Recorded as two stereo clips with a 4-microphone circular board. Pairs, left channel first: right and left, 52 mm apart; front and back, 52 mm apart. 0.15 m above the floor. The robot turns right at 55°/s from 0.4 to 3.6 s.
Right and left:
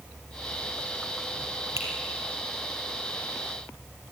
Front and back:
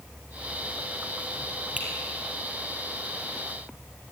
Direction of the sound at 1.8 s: 115° left.